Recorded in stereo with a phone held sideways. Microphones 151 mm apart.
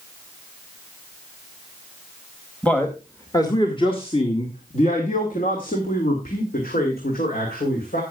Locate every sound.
2.6 s a man speaking: 10° left (ahead or behind), 1.6 m; by 8.0 s 75° left (ahead or behind), 3.5 m